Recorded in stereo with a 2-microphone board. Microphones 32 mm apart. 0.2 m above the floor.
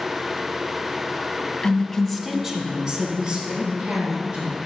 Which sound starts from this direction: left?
A woman speaking, at 1.6 s.